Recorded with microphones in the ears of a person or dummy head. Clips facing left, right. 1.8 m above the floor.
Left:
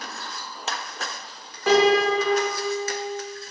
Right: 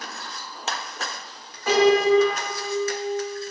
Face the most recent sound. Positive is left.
turn(degrees=60)  # may be behind; listen again after turning